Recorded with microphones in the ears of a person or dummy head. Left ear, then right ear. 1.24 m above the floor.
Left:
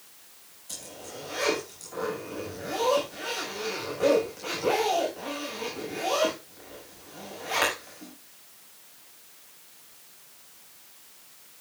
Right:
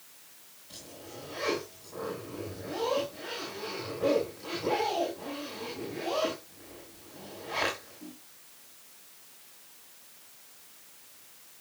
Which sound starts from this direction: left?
A zipper, at 0.7 s.